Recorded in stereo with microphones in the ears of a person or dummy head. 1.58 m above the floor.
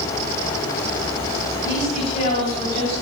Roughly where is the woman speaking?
Left.